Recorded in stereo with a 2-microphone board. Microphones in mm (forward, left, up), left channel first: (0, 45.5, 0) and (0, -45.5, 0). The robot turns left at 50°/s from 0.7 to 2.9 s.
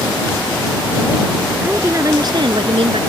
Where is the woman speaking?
15° right; by 3.0 s 80° right.